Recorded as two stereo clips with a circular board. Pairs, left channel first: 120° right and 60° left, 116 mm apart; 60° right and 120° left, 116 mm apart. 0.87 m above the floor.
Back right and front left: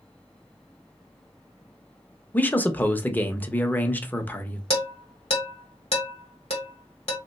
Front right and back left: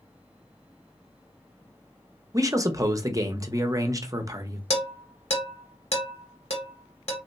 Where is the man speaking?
170° left, 0.7 m.